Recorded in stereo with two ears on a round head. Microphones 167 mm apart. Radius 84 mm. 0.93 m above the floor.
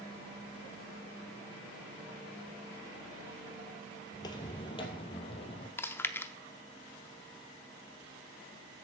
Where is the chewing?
10° left (ahead or behind), 0.6 m.